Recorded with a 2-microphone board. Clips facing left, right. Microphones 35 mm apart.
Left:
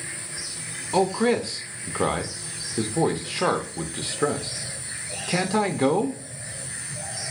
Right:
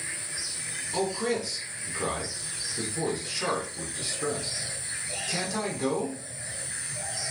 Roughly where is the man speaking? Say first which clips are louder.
Left 7 dB; left.